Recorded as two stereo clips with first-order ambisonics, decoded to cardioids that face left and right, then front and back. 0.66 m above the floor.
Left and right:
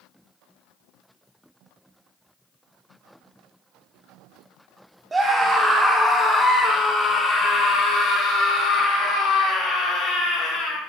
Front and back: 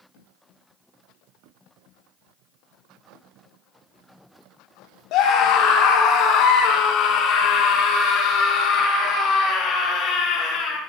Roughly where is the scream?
Ahead.